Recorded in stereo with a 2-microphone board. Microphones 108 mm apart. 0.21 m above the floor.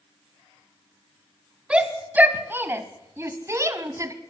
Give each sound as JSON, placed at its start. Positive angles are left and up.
{"t": 1.7, "sound": "a shout", "side_deg": -10, "distance_m": 1.5}